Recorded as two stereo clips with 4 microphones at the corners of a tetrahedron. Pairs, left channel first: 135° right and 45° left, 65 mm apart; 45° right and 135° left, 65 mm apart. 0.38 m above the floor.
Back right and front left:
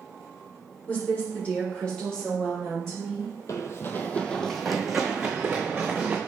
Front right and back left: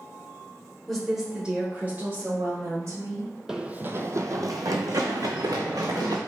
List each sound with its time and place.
0.9 s a woman speaking: 120° right, 1.4 m; by 3.3 s 140° left, 2 m
3.5 s running footsteps: 145° right, 0.6 m; by 6.2 s 120° left, 1.8 m